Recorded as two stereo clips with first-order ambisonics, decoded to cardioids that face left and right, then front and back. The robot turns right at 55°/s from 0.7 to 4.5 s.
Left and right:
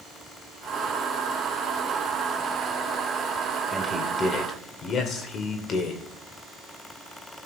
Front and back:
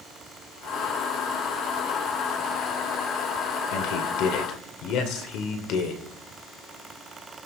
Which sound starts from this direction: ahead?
A man speaking, at 3.7 s.